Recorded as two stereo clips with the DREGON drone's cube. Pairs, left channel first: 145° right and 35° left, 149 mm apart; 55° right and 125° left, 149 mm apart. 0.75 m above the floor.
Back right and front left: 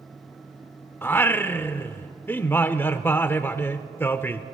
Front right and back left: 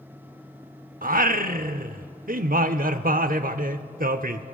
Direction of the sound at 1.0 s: 140° left.